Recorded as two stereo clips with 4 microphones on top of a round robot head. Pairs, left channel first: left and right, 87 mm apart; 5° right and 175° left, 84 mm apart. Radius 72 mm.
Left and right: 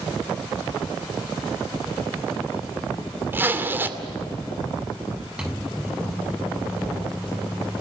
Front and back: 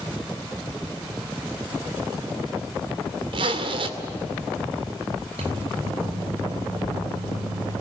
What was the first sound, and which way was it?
A zipper, 155° right.